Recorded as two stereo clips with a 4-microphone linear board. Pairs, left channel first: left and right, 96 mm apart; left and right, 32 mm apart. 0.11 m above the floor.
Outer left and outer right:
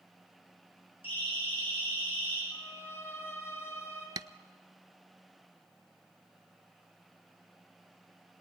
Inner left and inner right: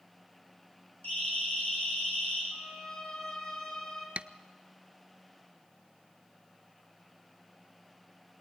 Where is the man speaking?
I don't hear a man speaking.